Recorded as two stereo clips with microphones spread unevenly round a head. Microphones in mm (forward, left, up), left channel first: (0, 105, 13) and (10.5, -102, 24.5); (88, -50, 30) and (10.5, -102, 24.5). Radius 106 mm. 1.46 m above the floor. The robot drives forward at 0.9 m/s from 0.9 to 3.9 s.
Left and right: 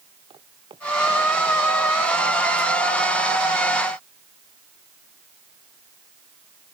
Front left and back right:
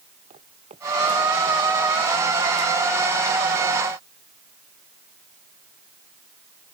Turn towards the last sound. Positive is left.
turn(degrees=-160)